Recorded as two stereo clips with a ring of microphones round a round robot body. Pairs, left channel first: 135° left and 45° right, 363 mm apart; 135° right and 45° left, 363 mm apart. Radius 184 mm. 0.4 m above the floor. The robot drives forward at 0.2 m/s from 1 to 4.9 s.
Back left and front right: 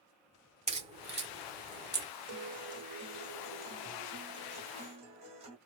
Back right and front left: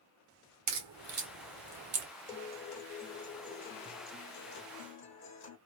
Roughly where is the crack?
Ahead.